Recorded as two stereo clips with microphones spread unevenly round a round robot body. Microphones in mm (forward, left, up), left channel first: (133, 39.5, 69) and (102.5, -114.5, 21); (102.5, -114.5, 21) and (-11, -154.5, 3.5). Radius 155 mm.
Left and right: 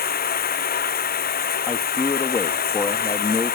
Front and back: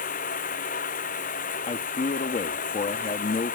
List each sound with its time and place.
0.0 s running water: 60° left
1.7 s a man speaking: 5° left